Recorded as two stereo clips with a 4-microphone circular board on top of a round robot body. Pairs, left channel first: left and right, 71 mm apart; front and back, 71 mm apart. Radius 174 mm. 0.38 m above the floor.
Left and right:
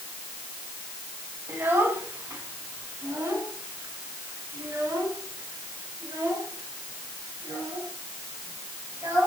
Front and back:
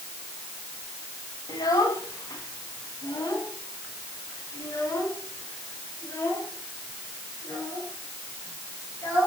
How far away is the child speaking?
About 4.5 m.